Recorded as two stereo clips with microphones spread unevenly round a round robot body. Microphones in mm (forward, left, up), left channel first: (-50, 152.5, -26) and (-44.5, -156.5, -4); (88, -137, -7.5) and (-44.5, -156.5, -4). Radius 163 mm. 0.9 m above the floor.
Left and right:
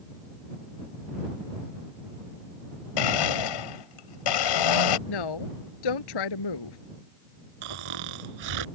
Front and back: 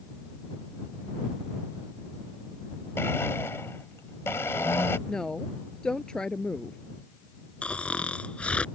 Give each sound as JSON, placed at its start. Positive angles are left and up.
{"t": 3.0, "sound": "a blender", "azimuth_deg": 90}
{"t": 5.1, "sound": "a woman speaking", "azimuth_deg": 95}
{"t": 7.6, "sound": "snoring", "azimuth_deg": -75}